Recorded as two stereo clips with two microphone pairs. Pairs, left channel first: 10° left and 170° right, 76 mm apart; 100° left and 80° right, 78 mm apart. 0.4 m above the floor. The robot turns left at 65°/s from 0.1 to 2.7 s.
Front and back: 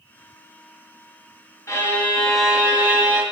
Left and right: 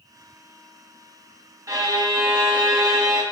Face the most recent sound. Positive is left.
turn(degrees=-105)